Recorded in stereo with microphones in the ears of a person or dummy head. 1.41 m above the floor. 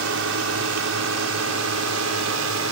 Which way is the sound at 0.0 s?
65° right (ahead or behind).